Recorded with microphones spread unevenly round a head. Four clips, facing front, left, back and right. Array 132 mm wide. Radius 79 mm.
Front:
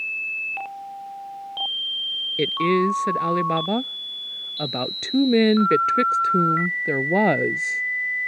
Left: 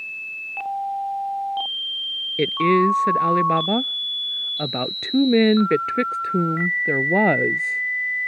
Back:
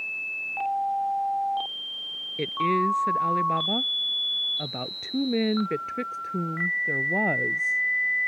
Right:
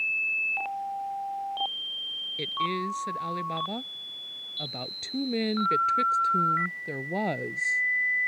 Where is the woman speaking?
55° left; by 7.8 s 45° left.